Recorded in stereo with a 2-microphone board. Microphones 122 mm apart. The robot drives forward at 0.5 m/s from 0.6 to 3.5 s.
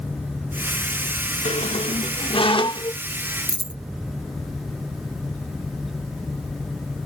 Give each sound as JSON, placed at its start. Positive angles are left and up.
{"t": 1.4, "sound": "a squeak", "side_deg": 70}
{"t": 3.5, "sound": "a dropped coin", "side_deg": 45}